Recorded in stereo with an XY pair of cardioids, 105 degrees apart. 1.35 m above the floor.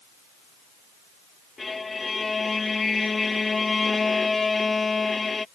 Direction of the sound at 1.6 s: 25° left.